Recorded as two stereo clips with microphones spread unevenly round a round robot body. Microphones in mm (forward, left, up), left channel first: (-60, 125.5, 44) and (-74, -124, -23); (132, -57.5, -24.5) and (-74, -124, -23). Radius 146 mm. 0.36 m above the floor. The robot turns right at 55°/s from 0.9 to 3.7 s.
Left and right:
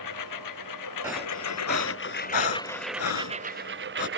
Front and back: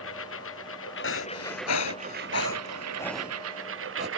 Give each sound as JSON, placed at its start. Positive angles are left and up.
{"t": 0.0, "sound": "a lawn mower", "azimuth_deg": 65}
{"t": 1.0, "sound": "breathing", "azimuth_deg": -10}